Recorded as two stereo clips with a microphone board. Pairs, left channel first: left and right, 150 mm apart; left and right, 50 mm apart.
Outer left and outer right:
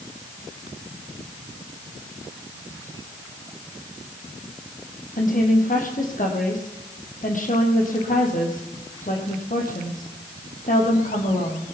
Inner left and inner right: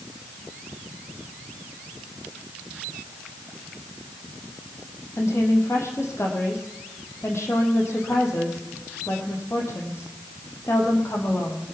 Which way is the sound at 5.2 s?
65° left (ahead or behind).